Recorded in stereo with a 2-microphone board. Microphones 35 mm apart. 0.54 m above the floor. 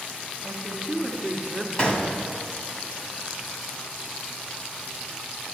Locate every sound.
0.4 s a woman speaking: 20° right (ahead or behind), 1.2 m; by 1.7 s 10° left (ahead or behind), 1.8 m
1.8 s a gunshot: 30° left (ahead or behind), 1.3 m